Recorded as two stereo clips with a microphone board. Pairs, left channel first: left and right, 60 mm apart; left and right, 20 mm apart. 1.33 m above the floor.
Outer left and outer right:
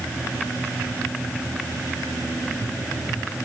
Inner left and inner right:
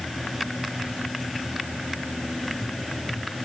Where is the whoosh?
No whoosh in this recording.